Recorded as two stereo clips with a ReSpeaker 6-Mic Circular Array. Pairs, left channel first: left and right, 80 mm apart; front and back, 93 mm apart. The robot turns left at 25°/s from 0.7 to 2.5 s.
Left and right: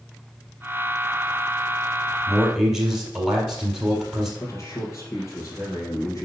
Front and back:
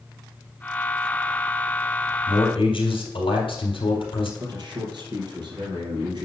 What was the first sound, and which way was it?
A man speaking, straight ahead.